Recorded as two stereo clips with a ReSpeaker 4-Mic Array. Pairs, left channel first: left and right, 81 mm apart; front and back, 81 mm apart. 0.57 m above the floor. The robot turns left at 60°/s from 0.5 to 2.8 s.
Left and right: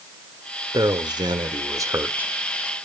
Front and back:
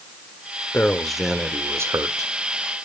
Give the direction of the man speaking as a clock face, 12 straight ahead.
2 o'clock.